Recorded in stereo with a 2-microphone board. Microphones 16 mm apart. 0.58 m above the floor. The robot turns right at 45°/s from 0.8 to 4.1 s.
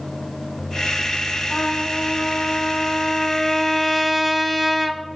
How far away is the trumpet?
About 1.7 m.